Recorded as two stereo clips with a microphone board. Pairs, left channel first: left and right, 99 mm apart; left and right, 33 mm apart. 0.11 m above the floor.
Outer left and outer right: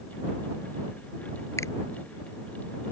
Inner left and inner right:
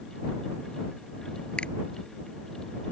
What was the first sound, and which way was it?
A finger snap, 30° left (ahead or behind).